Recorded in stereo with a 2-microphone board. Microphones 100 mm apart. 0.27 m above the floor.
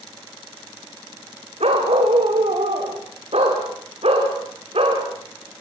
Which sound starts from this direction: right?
A dog barking, at 1.6 s.